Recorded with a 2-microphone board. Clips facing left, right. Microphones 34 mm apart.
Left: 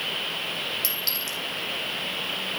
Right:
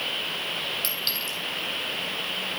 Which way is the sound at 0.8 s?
35° right (ahead or behind).